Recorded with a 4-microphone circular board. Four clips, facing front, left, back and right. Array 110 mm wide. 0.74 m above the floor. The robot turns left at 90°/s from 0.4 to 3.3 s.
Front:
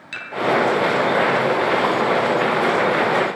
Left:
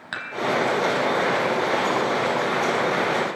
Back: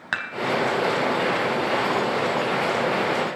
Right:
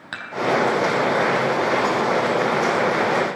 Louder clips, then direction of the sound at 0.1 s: Left 1 dB, back 5 dB; straight behind.